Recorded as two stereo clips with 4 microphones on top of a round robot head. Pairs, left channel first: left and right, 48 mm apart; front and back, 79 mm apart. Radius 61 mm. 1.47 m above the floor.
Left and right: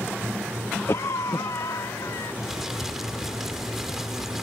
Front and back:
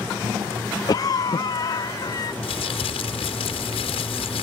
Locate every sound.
0.9 s a cough: 45° left
2.4 s crumpling: 5° right